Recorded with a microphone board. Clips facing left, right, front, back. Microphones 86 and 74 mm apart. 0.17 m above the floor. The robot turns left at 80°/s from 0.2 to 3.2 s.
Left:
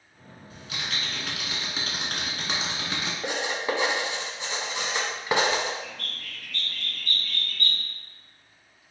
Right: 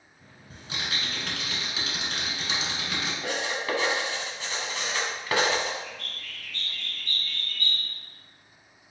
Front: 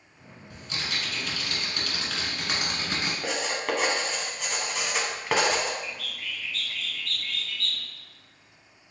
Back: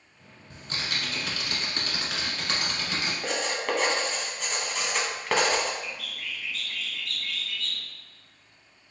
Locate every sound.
0.5 s typing on a keyboard: 125° right, 1.3 m; by 3.1 s 25° left, 1.3 m
3.2 s writing: 80° left, 0.8 m
5.8 s a bird: 95° left, 0.6 m